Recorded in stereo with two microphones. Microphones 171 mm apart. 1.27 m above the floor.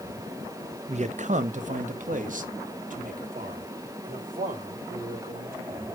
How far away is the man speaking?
About 0.6 m.